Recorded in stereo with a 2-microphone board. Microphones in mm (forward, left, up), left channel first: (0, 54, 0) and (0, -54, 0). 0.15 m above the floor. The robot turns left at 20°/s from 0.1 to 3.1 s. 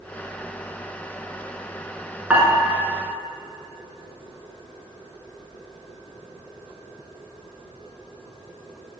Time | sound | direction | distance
2.3 | dishes clattering | 10° right (ahead or behind) | 1.2 m